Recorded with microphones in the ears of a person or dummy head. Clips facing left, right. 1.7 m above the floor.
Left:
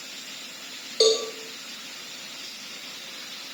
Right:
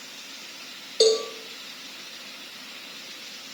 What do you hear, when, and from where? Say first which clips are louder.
1.0 s a cowbell: right 1 dB; 15° right (ahead or behind), 2.5 m